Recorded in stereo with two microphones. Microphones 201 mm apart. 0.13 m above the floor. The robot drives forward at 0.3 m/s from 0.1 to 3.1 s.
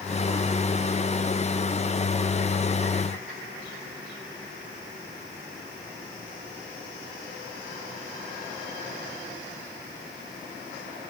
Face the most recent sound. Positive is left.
No sound to turn to.